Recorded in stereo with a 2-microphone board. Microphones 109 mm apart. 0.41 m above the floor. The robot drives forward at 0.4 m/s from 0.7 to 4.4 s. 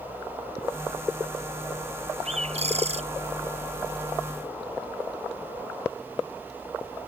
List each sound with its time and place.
2.2 s a bird: 80° right; by 3.0 s 75° right (ahead or behind)